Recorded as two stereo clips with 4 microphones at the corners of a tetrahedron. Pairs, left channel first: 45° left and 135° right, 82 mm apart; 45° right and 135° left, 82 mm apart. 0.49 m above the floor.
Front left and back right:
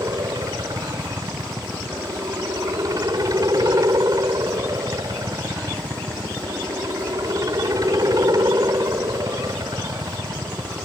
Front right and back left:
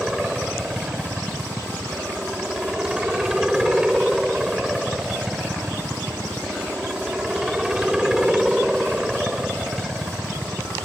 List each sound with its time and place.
0.0 s a helicopter: 145° right